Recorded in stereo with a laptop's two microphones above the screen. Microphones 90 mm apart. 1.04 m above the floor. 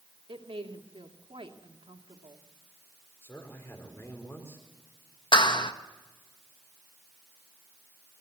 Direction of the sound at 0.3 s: 80° right.